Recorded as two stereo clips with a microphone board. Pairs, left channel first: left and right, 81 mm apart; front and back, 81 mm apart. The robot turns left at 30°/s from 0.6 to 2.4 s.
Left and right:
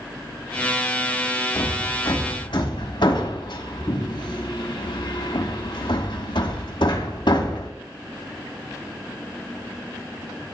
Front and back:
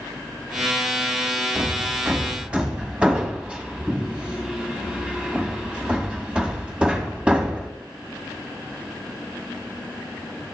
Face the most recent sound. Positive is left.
turn(degrees=105)